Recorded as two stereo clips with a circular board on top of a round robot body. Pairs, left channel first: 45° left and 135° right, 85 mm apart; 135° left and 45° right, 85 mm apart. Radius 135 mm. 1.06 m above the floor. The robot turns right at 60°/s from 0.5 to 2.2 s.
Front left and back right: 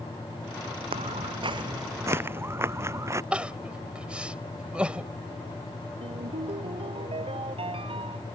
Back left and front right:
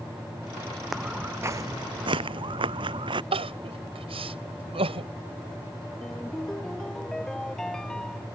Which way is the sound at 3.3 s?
55° right.